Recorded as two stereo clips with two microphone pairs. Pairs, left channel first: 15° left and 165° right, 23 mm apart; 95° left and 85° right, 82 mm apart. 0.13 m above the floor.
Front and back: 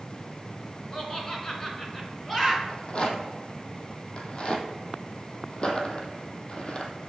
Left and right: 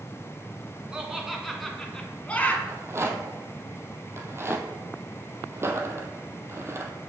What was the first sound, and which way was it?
Laughter, 15° right.